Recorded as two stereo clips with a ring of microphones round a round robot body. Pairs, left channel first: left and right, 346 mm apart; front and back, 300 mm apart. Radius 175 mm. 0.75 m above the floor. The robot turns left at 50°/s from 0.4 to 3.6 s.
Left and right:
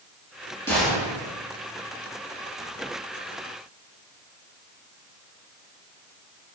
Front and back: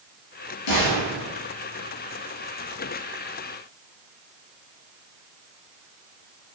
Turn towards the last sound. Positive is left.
turn(degrees=-140)